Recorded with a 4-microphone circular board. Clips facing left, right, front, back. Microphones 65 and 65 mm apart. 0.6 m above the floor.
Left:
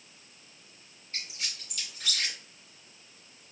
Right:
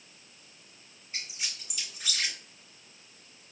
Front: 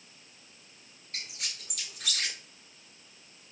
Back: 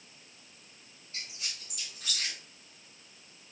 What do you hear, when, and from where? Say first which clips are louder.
1.1 s a squeak: even, front 2 dB; 10° right, 1.3 m